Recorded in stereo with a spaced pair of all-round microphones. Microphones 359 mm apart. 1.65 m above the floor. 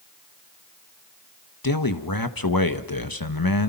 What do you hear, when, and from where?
1.6 s a man speaking: 70° left (ahead or behind), 1.7 m